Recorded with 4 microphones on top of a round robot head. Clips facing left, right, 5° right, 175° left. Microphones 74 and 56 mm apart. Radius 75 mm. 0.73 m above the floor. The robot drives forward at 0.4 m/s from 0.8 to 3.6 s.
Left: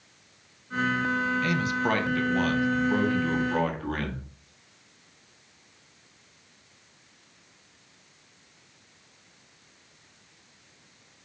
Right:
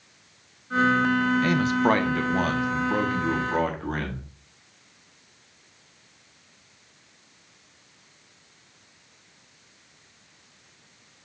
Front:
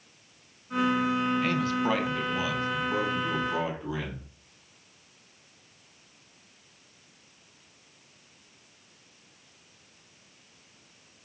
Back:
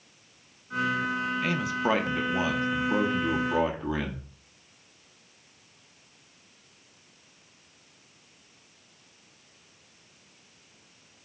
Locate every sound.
1.4 s a man speaking: 100° right, 0.6 m; by 4.3 s 160° right, 1.1 m